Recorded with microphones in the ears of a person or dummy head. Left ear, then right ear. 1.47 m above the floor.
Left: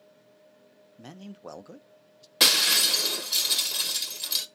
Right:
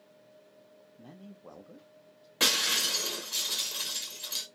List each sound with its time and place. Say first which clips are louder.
1.0 s a man speaking: left 8 dB; 70° left (ahead or behind), 0.6 m
2.4 s breaking glass: left 6 dB; 20° left (ahead or behind), 1.0 m